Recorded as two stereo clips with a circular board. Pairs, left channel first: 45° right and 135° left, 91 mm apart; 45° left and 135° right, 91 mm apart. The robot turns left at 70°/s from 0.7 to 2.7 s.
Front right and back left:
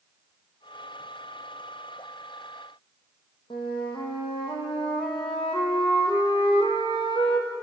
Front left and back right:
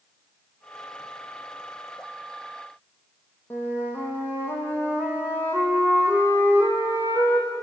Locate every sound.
3.5 s a flute: 20° right, 5.5 m